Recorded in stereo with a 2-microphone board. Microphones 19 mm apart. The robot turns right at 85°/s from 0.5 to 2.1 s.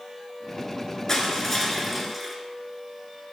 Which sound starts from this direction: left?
Crushing, at 1.1 s.